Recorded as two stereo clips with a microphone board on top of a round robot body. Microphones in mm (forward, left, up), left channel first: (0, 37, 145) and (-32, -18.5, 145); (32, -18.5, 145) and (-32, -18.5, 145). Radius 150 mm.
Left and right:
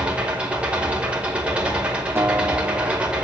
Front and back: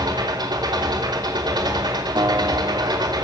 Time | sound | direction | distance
0.0 | an engine running | 170° left | 5 m
2.1 | a guitar | 175° right | 3 m